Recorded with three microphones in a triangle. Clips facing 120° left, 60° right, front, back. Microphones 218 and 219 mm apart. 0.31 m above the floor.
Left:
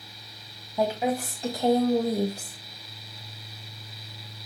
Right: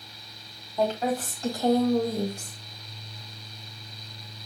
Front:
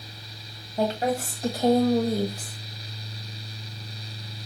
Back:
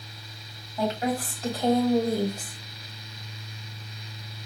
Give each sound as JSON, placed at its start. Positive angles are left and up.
{"t": 0.8, "sound": "a woman speaking", "azimuth_deg": 40, "distance_m": 1.6}